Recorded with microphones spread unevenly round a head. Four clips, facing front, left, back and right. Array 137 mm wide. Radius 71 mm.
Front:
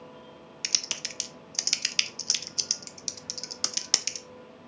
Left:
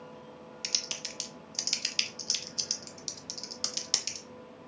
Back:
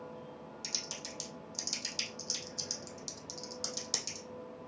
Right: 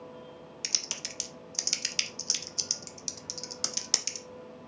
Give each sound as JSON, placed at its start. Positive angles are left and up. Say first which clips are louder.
{"t": 0.6, "sound": "typing on a keyboard", "louder": "even, front 3 dB", "azimuth_deg": -10, "distance_m": 0.6}